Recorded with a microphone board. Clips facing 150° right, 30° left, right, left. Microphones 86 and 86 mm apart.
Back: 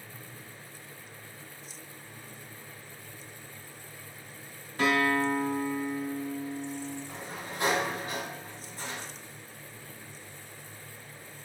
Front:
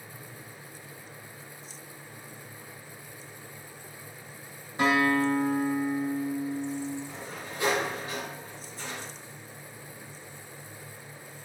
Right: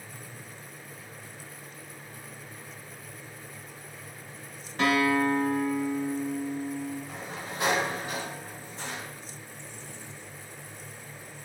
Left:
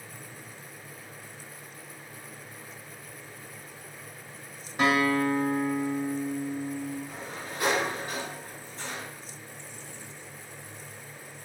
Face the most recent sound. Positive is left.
turn(degrees=-145)